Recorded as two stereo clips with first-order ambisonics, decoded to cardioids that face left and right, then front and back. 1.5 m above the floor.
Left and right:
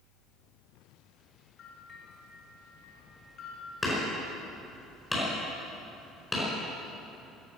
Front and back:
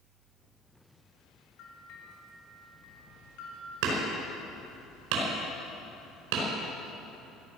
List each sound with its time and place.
1.6 s a bell: 30° left, 3 m
3.8 s hammering: 175° left, 4.5 m